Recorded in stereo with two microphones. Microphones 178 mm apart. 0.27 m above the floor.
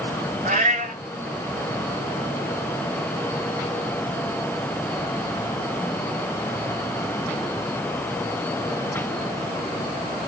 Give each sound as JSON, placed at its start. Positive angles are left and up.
{"t": 0.5, "sound": "a cat meowing", "side_deg": -50, "distance_m": 1.0}